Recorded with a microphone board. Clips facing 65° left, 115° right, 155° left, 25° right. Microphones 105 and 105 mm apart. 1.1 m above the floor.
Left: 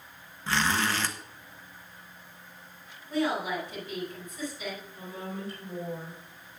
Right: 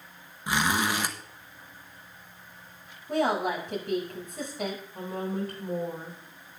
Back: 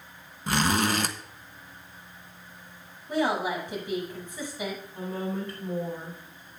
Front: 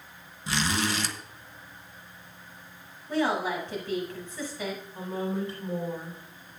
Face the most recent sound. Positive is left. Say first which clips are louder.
# right 6 dB, front 1 dB
turn(degrees=-100)